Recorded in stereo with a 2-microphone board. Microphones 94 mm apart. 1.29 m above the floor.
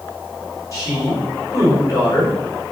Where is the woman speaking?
35° left (ahead or behind), 5 m.